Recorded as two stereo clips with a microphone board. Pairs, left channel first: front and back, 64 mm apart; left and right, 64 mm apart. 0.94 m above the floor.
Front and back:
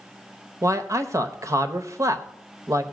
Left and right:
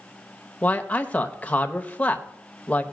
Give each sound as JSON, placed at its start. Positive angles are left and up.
{"t": 0.6, "sound": "a man speaking", "azimuth_deg": 155, "distance_m": 0.9}